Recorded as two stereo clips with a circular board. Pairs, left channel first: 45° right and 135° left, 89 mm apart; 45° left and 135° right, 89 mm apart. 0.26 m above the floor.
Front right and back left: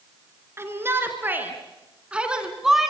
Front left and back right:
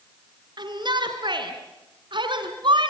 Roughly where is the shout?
Behind.